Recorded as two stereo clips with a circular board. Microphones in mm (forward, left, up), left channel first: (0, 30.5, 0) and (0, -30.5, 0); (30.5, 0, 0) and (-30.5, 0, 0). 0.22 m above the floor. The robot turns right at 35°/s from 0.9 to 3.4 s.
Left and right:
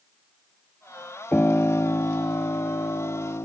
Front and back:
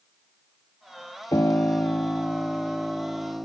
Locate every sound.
1.3 s a piano: 30° left; by 3.5 s 105° left